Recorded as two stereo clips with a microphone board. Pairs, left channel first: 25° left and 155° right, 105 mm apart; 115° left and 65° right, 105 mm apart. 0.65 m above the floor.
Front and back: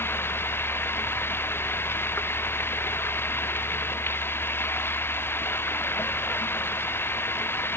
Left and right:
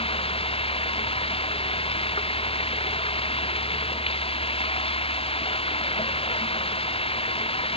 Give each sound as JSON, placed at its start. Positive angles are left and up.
{"t": 0.0, "sound": "running water", "azimuth_deg": 90}